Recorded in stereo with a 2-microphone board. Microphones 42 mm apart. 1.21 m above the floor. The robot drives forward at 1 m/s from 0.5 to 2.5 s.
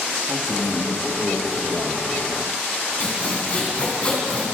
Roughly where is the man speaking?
Right.